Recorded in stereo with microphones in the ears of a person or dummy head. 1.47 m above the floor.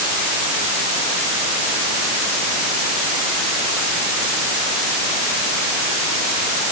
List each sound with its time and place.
Only background noise.